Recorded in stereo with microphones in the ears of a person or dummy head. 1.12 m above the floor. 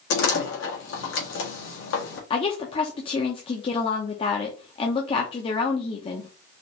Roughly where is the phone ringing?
No phone ringing in this recording.